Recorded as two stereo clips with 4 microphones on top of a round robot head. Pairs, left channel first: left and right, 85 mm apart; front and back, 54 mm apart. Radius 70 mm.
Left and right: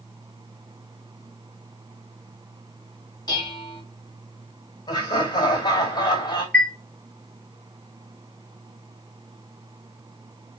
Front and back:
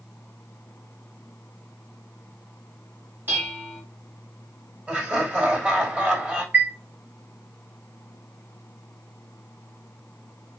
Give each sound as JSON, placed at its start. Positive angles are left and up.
{"t": 3.3, "sound": "dishes clattering", "azimuth_deg": 130, "distance_m": 2.0}
{"t": 4.9, "sound": "laughter", "azimuth_deg": 115, "distance_m": 3.0}
{"t": 6.5, "sound": "a chime", "azimuth_deg": 155, "distance_m": 1.0}